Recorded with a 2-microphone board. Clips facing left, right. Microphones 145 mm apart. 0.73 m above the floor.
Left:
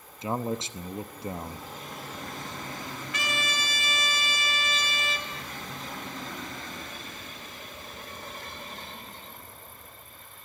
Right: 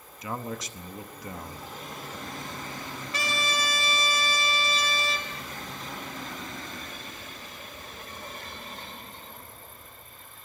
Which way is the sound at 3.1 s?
35° right (ahead or behind).